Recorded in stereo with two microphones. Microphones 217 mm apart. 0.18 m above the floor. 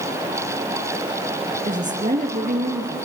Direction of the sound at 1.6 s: 35° right (ahead or behind).